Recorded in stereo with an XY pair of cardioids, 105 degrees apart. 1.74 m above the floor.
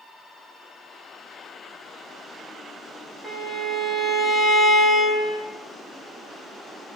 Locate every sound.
3.2 s a violin: 5° right, 1.7 m